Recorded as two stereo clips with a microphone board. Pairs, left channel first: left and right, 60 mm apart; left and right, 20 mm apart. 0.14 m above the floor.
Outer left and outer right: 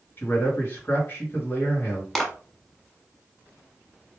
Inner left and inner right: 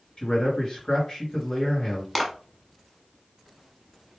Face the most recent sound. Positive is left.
turn(degrees=5)  # may be behind; listen again after turning